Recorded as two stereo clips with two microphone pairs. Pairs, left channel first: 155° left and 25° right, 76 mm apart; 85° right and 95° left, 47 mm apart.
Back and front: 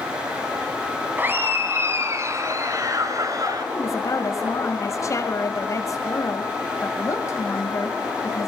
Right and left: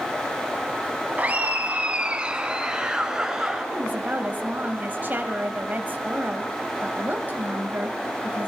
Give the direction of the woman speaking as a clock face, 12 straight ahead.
8 o'clock.